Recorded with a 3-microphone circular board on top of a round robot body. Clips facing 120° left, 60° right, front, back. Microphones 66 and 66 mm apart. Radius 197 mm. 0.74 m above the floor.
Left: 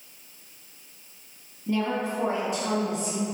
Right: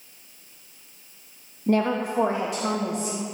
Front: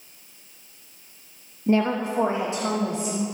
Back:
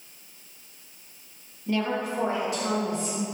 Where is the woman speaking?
50° right, 0.9 m; by 3.2 s 65° right, 2 m.